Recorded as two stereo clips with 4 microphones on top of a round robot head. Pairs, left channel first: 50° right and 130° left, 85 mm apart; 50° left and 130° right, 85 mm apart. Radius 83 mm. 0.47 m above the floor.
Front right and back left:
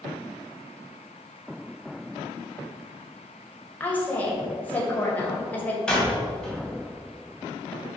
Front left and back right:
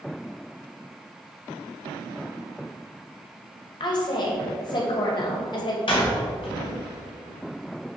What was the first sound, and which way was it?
A woman speaking, 20° left.